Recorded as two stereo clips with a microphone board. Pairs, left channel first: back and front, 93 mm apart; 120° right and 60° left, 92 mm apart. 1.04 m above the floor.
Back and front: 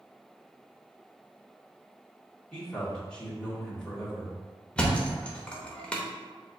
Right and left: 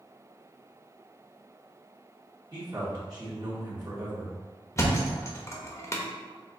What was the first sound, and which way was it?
A man speaking, 100° left.